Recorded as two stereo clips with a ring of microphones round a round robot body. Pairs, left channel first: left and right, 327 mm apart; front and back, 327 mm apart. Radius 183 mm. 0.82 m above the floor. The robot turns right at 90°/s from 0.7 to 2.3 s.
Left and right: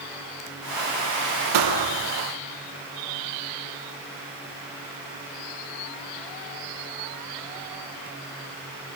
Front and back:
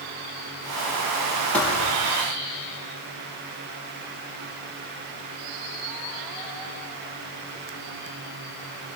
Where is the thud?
90° right, 3.5 m; by 2.1 s 35° right, 3.5 m.